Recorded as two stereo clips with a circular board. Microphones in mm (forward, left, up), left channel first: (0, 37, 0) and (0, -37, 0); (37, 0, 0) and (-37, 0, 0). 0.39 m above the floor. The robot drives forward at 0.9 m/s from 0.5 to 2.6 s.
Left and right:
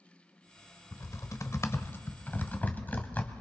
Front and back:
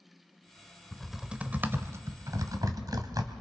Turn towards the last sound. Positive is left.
turn(degrees=155)